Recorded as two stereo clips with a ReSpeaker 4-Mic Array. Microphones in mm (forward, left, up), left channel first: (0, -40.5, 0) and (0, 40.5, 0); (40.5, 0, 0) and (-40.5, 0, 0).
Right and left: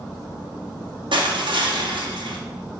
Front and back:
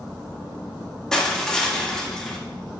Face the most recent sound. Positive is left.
turn(degrees=85)